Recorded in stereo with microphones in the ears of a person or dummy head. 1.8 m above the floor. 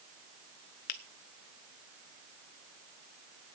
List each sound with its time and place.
0.9 s a finger snap: 45° left (ahead or behind), 0.6 m